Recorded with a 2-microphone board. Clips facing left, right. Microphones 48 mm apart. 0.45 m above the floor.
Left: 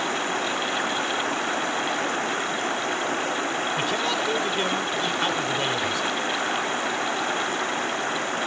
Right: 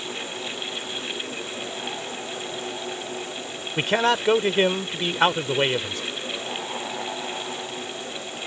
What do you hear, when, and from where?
0.0 s running water: 60° left (ahead or behind)
3.8 s a man speaking: 45° right (ahead or behind)